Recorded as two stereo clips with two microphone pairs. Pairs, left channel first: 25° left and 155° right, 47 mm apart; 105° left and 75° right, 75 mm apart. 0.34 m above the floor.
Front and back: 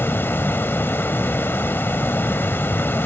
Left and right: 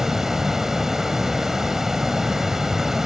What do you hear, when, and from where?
0.0 s running water: 10° left, 0.8 m